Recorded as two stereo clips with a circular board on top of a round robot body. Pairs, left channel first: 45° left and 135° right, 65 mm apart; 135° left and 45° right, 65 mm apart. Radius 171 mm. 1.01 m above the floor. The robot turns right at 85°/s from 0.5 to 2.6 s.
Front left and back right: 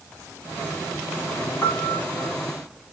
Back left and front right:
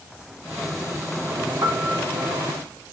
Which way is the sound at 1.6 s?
25° right.